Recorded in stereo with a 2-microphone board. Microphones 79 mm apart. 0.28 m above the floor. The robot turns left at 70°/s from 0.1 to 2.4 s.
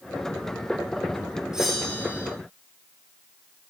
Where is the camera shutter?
No camera shutter in this recording.